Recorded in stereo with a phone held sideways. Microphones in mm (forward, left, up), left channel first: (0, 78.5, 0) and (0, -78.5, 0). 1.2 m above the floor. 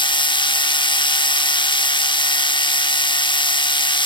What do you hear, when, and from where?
0.0 s a machine running: 30° left (ahead or behind), 0.9 m